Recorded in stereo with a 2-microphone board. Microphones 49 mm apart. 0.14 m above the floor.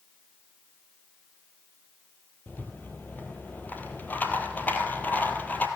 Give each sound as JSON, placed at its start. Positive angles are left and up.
{"t": 2.5, "sound": "a rattle", "side_deg": 35, "distance_m": 1.3}